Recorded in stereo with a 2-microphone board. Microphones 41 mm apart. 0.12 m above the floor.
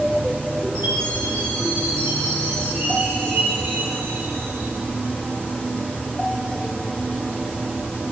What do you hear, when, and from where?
0.8 s a chime: 75° right (ahead or behind), 7.5 m